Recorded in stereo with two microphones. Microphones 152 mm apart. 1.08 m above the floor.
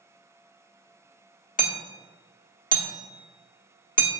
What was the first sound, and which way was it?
Hammering, 60° left (ahead or behind).